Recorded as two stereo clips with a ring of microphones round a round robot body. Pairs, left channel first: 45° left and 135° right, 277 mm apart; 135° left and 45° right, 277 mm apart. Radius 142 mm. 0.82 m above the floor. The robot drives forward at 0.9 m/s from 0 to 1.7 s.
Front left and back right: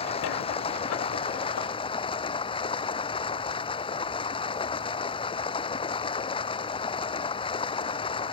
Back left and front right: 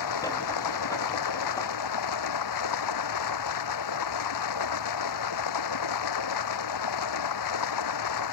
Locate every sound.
0.0 s running water: 115° left; by 8.3 s 120° left